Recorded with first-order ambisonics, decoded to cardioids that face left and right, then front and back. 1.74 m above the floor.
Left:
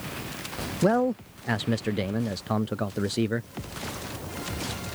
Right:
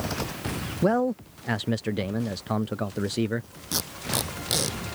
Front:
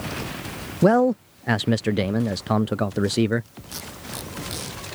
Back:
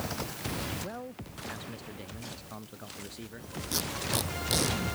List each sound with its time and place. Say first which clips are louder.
0.8 s a man speaking: even, front 23 dB; straight ahead
3.7 s tape being pulled: right 8 dB, back 4 dB; 105° right